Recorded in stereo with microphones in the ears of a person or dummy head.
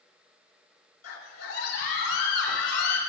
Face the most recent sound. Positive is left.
turn(degrees=80)